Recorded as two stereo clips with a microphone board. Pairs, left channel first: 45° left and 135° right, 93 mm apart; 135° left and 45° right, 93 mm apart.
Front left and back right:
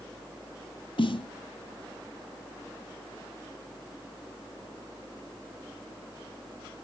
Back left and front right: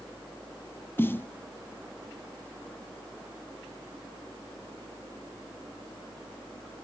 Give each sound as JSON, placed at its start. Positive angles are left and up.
{"t": 1.0, "sound": "a snare drum", "azimuth_deg": 70, "distance_m": 0.5}